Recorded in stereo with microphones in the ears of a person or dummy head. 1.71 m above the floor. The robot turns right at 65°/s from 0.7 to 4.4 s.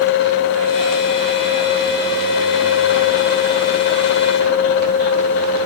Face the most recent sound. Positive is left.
No sound to turn to.